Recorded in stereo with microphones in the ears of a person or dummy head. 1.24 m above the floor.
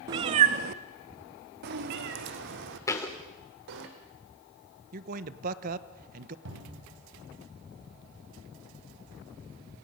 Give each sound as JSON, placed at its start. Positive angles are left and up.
{"t": 0.1, "sound": "a cat meowing", "side_deg": -25, "distance_m": 0.6}
{"t": 2.9, "sound": "a thud", "side_deg": 15, "distance_m": 1.9}
{"t": 4.9, "sound": "a man speaking", "side_deg": -50, "distance_m": 1.1}
{"t": 6.5, "sound": "a cupboard door", "side_deg": -75, "distance_m": 5.5}